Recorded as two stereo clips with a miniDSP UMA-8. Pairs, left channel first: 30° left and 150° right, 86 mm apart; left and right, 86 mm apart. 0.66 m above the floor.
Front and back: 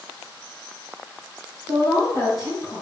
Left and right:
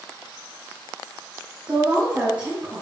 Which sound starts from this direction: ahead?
A woman speaking, at 1.7 s.